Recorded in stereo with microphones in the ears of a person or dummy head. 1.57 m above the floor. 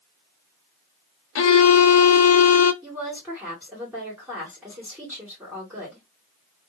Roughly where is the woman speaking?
Centre.